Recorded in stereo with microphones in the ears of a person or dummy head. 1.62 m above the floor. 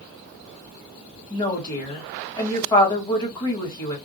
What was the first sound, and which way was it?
A woman speaking, 25° left (ahead or behind).